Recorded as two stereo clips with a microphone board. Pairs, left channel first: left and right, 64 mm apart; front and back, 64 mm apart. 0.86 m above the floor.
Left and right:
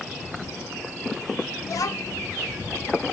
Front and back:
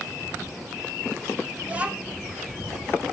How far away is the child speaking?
About 0.9 m.